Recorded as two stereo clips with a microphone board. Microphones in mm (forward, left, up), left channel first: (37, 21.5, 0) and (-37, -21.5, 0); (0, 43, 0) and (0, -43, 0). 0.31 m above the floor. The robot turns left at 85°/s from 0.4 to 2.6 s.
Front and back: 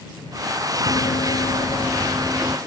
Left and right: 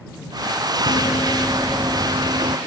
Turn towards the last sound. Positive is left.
turn(degrees=-95)